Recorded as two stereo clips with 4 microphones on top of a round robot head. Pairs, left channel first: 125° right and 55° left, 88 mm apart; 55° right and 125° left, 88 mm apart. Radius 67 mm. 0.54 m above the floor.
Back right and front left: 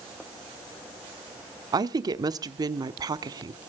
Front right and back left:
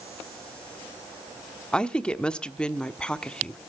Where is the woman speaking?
25° left, 1.0 m.